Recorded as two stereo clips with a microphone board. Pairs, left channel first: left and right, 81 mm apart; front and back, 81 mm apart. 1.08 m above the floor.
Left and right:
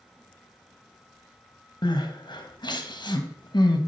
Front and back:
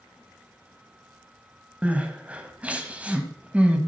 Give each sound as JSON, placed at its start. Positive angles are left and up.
{"t": 1.8, "sound": "crying", "azimuth_deg": 105, "distance_m": 1.3}